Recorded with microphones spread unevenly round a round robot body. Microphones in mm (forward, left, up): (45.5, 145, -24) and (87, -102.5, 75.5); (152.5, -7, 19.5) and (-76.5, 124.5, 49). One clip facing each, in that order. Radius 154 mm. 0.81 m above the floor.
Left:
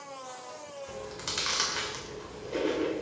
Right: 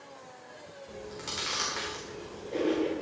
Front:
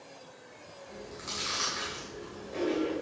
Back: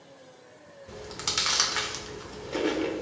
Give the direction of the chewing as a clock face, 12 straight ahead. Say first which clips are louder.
Right 1 dB, back 4 dB; 6 o'clock.